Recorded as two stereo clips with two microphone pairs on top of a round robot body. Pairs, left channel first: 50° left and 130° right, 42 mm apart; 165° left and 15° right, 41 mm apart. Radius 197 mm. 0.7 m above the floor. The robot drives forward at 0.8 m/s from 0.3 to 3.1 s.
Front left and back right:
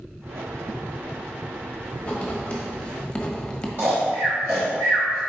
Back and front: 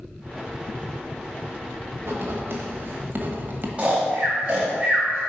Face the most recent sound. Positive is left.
turn(degrees=-85)